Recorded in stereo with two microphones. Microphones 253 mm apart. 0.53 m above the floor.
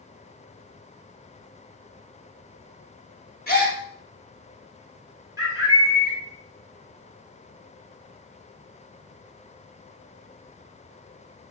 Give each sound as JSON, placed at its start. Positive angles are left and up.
{"t": 3.5, "sound": "a gasp", "side_deg": 40, "distance_m": 0.8}
{"t": 5.4, "sound": "a bird", "side_deg": -15, "distance_m": 1.2}